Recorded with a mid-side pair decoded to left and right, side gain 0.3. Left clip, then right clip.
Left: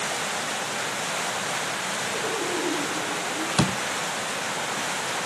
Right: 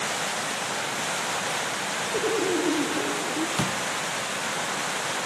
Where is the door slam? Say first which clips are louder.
Left 2 dB; 60° left, 0.8 m.